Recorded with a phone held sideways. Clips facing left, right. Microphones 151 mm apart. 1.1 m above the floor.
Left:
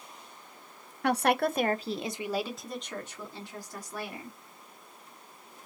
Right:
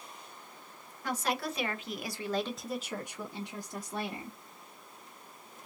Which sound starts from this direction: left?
A woman speaking, at 1.0 s.